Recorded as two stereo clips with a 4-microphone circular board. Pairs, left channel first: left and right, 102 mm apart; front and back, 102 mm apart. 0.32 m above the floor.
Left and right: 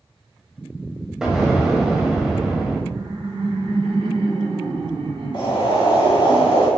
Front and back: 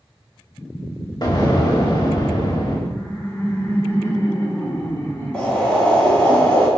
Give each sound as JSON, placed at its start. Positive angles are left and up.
{"t": 1.2, "sound": "an explosion", "azimuth_deg": -10, "distance_m": 1.7}
{"t": 2.9, "sound": "laughter", "azimuth_deg": -65, "distance_m": 2.5}
{"t": 5.3, "sound": "boiling", "azimuth_deg": 75, "distance_m": 2.5}